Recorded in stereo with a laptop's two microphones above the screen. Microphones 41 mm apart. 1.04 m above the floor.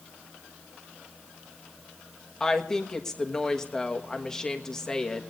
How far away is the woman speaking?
About 1.3 m.